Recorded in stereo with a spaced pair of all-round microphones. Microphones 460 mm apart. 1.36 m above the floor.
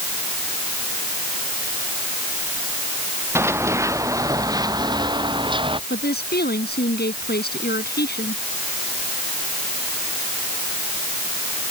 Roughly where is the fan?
No fan in this recording.